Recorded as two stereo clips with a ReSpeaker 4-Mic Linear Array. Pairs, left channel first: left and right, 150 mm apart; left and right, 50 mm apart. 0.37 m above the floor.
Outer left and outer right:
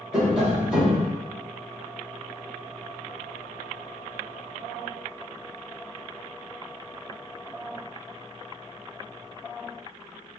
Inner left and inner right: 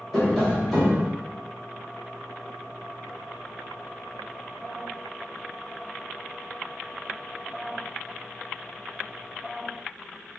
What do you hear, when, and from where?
0.1 s tapping: 5° right (ahead or behind), 1.7 m